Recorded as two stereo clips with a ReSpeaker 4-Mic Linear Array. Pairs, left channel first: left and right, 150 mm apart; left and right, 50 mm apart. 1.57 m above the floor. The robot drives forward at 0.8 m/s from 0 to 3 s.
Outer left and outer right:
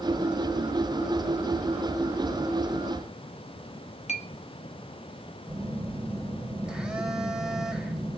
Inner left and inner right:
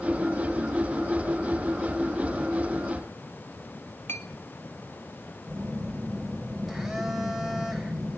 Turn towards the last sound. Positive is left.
turn(degrees=-5)  # may be behind; listen again after turning